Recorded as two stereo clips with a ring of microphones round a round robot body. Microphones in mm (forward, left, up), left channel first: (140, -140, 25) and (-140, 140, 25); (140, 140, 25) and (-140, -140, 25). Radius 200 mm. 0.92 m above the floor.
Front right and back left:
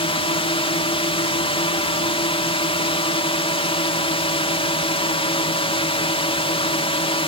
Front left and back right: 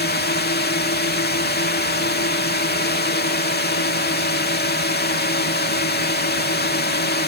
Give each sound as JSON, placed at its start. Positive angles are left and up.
{"t": 0.0, "sound": "a drone", "azimuth_deg": 15}